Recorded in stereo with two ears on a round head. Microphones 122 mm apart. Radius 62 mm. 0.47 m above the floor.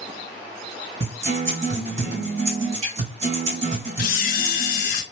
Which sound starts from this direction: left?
A camera shutter, at 4.0 s.